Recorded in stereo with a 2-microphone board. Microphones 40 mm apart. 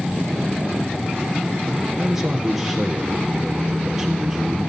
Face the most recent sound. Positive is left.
turn(degrees=-10)  # may be behind; listen again after turning